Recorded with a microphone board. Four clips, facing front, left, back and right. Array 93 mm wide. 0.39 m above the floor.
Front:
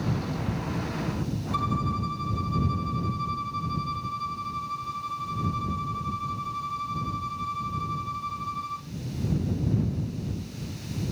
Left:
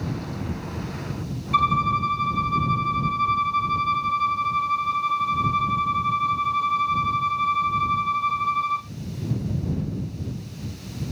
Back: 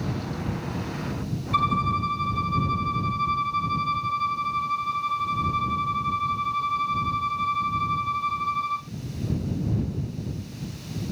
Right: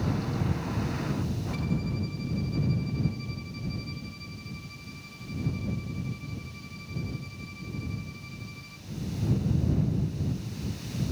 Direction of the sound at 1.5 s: 110° left.